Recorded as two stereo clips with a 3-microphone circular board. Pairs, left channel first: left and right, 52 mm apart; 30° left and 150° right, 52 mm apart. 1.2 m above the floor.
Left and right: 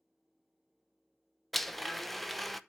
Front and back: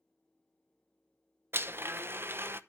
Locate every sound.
1.5 s a blender: 175° left, 0.7 m